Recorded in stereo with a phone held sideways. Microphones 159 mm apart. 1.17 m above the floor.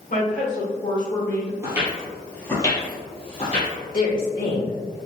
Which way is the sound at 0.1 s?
60° left (ahead or behind).